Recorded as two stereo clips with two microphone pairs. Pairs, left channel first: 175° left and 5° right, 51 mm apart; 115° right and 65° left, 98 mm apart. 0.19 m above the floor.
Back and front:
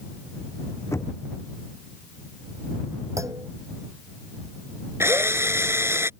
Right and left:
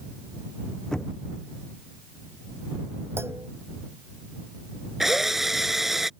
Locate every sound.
0.9 s knocking: 160° left
3.2 s a clunk: straight ahead
5.0 s a drill: 25° right